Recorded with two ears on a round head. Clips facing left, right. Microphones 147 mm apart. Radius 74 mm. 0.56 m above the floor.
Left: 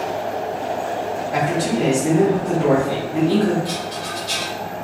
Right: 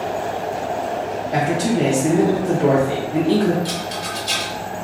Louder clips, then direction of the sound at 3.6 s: Even; 55° right (ahead or behind).